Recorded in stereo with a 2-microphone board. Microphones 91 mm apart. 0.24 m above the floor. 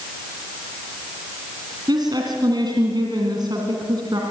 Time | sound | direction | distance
1.9 | a woman speaking | 55° right (ahead or behind) | 3 m